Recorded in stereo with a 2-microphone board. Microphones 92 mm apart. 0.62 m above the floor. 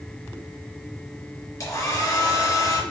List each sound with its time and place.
1.6 s a hair dryer: 40° left (ahead or behind), 3 m